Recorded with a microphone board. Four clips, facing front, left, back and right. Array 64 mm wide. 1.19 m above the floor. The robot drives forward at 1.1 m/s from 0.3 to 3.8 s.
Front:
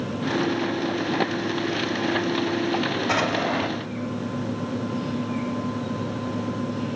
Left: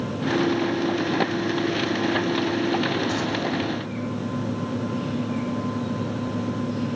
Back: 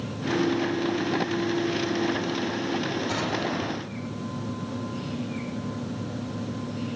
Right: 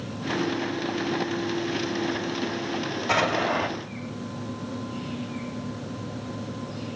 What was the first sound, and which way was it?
An explosion, 50° right.